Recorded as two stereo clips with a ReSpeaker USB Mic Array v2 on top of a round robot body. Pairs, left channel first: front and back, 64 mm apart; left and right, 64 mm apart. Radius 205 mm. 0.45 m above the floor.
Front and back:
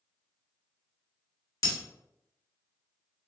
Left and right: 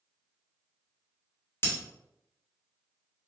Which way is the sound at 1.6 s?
35° left.